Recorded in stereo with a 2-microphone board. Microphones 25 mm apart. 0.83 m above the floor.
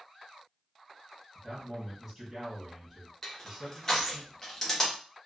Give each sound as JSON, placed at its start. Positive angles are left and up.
{"t": 1.4, "sound": "a man speaking", "side_deg": -5, "distance_m": 1.5}
{"t": 3.2, "sound": "crushing", "side_deg": 20, "distance_m": 0.9}